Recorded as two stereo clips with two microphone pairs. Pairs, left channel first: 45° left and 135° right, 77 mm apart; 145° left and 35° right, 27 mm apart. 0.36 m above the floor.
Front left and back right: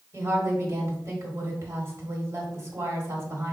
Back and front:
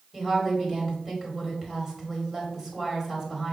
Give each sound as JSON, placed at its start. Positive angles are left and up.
{"t": 0.1, "sound": "a woman speaking", "azimuth_deg": -95, "distance_m": 1.5}